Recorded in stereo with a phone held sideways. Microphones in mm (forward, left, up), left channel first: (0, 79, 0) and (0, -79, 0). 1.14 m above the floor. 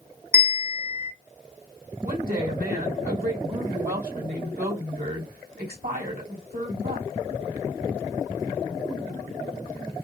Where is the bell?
15° right (ahead or behind), 1.2 m.